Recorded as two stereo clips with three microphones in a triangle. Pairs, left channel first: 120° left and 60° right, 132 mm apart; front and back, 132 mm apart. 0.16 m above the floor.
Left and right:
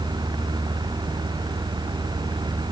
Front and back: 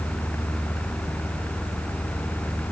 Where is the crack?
No crack in this recording.